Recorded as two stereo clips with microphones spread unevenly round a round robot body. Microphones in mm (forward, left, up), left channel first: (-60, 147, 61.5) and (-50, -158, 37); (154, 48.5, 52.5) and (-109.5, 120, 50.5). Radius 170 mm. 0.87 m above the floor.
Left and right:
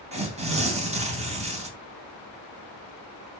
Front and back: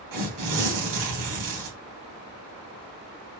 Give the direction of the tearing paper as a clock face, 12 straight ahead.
5 o'clock.